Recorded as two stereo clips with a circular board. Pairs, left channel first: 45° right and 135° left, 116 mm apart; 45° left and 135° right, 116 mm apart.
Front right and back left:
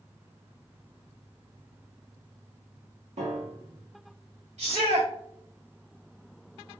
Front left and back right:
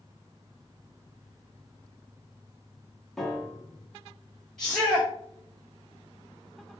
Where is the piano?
135° left, 1.0 m.